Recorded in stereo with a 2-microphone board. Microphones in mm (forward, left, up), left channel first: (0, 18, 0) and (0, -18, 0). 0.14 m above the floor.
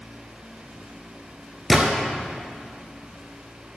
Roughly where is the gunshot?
Centre.